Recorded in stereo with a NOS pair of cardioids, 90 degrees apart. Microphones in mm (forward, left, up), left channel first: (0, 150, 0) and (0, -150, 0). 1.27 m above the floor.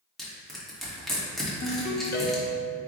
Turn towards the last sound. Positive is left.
turn(degrees=35)